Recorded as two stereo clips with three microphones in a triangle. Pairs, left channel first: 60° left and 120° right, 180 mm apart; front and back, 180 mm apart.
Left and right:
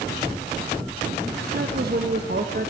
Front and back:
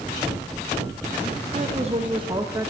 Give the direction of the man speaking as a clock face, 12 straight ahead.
5 o'clock.